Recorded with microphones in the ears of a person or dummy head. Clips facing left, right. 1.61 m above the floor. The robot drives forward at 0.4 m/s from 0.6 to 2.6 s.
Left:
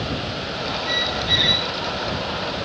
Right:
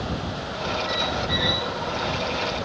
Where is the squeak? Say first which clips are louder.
Even; 50° left (ahead or behind), 0.7 m; by 1.7 s 40° left (ahead or behind), 0.9 m.